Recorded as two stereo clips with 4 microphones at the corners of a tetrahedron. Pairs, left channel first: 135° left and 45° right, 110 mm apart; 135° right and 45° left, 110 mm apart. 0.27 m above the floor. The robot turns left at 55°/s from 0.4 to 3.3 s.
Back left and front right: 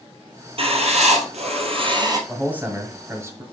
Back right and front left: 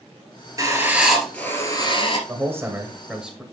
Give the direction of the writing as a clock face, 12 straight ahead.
12 o'clock.